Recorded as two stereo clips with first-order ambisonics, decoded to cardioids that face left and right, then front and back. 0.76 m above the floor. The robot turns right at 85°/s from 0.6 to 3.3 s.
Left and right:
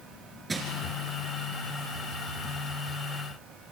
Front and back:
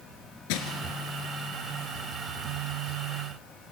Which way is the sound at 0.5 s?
10° right.